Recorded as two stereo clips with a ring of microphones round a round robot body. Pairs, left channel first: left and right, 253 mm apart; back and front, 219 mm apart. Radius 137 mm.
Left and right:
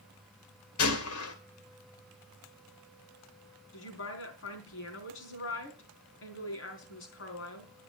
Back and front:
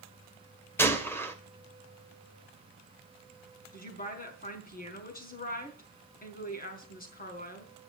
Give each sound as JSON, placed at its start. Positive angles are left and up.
{"t": 0.8, "sound": "a gunshot", "azimuth_deg": 100, "distance_m": 2.0}
{"t": 3.7, "sound": "a woman speaking", "azimuth_deg": 130, "distance_m": 4.0}